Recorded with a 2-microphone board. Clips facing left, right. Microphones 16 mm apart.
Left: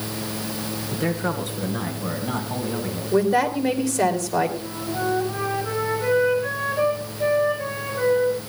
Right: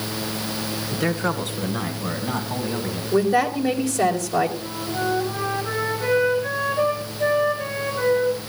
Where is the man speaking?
20° right (ahead or behind), 1.9 m; by 3.0 s centre (ahead or behind), 4.5 m.